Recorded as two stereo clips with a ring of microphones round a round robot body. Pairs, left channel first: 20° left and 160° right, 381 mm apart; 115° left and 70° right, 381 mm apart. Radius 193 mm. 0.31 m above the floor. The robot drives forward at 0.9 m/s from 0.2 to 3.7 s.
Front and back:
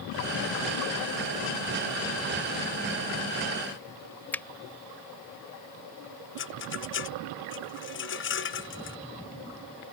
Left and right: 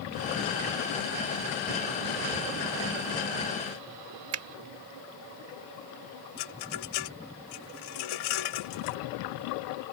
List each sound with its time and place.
4.3 s a finger snap: 60° right
6.4 s a rattle: 85° left